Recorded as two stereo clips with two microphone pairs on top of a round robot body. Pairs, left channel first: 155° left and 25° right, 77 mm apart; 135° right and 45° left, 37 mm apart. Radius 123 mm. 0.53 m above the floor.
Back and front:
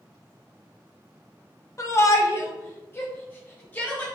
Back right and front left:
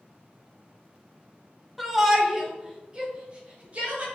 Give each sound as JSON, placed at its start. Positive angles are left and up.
{"t": 1.8, "sound": "a shout", "azimuth_deg": 135, "distance_m": 1.8}